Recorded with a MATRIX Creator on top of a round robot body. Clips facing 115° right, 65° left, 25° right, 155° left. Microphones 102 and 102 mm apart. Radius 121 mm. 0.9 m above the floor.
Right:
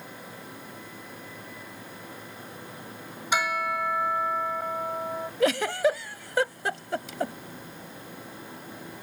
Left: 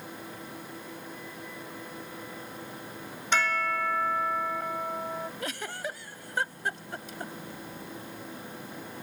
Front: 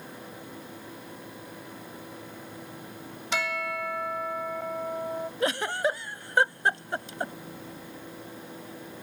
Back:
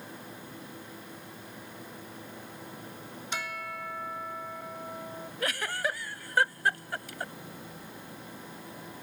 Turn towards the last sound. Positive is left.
turn(degrees=-90)